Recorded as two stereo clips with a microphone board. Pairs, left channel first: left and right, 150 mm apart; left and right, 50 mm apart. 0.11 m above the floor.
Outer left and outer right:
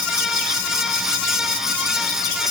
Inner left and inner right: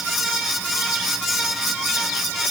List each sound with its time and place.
Only background noise.